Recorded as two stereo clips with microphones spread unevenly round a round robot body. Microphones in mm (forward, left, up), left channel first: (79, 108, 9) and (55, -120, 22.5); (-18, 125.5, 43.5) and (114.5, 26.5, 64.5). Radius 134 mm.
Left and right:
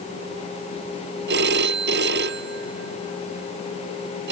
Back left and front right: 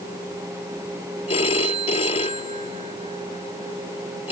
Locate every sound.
1.3 s a phone ringing: 150° right